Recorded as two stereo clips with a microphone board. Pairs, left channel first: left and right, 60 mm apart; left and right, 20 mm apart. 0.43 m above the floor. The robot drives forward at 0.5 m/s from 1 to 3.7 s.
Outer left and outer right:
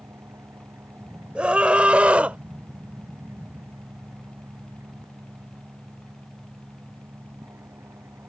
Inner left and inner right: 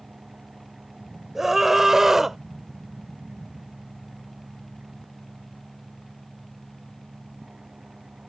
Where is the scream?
20° right (ahead or behind); by 2.4 s 25° right (ahead or behind).